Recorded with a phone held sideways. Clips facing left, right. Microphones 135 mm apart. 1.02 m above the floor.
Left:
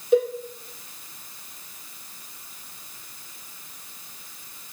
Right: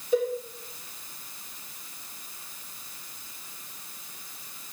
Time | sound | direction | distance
0.1 | a cowbell | 80° left | 3.5 m